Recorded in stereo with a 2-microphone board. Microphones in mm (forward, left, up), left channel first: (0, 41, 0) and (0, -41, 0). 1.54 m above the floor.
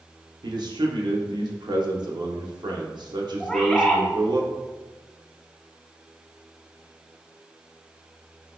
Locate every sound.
0.4 s a man speaking: 65° right (ahead or behind), 0.7 m
3.4 s a bird: 10° left (ahead or behind), 0.6 m